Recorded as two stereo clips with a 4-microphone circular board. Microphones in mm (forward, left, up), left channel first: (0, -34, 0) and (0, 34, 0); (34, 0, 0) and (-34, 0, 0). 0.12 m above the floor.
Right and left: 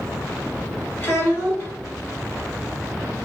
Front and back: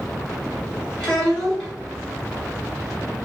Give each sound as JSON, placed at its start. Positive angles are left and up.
{"t": 1.0, "sound": "a child speaking", "azimuth_deg": -80, "distance_m": 1.3}